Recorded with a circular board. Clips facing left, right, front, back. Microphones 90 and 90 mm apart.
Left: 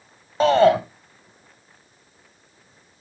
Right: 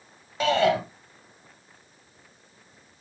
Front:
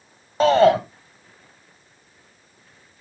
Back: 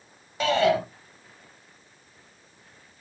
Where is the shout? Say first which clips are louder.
Left 7 dB, front 7 dB; 40° left, 1.8 m.